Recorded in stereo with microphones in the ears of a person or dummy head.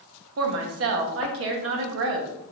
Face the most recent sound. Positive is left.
turn(degrees=-75)  # may be behind; listen again after turning